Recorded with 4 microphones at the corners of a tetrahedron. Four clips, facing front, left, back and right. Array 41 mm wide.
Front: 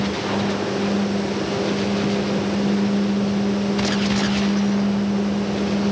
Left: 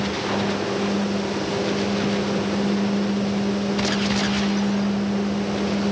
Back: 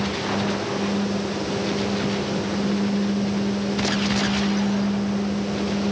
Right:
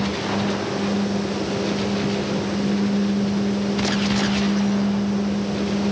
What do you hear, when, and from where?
Only background noise.